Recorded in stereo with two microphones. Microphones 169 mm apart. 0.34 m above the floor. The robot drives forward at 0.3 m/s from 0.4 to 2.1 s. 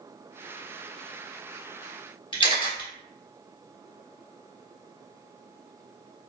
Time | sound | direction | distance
2.3 | a camera shutter | 30° left (ahead or behind) | 1.3 m